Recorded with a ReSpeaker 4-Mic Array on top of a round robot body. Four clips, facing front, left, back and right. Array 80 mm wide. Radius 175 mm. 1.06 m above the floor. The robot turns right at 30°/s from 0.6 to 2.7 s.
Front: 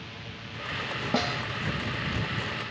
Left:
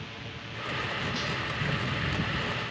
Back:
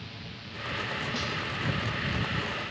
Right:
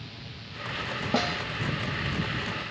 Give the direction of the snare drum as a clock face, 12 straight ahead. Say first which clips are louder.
Right 6 dB, front 5 dB; 2 o'clock.